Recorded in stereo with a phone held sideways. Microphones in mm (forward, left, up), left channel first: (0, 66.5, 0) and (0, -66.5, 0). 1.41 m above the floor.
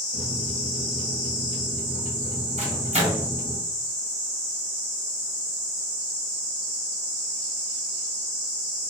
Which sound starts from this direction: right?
A microwave, at 2.6 s.